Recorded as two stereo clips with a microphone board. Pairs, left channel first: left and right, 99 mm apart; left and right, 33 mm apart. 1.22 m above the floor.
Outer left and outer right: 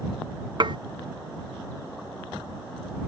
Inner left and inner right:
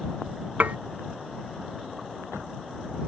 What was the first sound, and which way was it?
Dishes clattering, 50° right (ahead or behind).